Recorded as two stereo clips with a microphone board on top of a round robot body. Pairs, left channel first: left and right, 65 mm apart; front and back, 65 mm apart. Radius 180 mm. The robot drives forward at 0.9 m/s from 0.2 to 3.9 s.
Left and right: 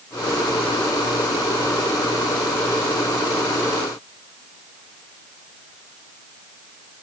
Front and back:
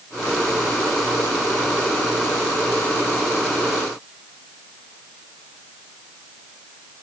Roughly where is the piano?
I don't hear a piano.